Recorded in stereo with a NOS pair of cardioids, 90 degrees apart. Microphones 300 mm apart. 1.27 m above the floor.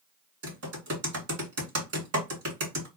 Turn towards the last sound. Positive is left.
turn(degrees=-50)